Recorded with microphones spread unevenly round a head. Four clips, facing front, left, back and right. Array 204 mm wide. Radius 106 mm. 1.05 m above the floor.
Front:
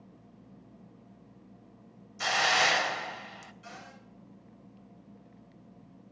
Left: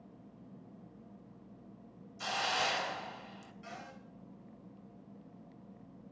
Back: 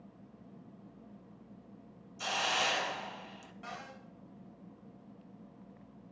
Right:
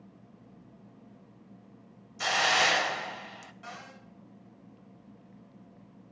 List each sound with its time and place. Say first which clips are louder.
2.2 s a hiss: right 8 dB, front 7 dB; 65° right, 1.1 m
3.6 s a cupboard door: right 2 dB, back 5 dB; 150° right, 7 m